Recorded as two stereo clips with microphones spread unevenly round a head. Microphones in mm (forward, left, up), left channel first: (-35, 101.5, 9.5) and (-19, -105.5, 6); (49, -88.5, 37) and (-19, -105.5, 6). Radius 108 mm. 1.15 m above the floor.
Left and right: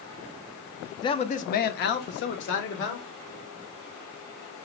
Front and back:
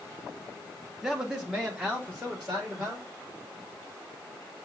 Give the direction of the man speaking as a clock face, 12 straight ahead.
7 o'clock.